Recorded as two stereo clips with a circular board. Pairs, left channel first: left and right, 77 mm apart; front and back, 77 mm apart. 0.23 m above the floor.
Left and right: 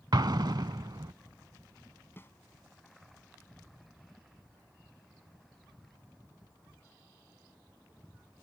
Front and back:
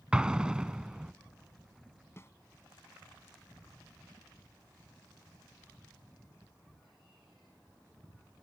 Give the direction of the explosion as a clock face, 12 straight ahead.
3 o'clock.